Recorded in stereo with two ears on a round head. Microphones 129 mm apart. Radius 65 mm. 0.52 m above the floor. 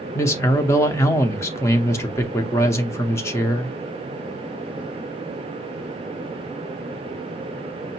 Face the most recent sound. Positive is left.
turn(degrees=20)  # may be behind; listen again after turning